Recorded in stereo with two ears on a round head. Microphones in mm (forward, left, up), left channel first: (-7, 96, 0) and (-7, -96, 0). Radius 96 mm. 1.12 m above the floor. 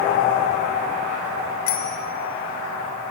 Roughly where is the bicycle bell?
Left.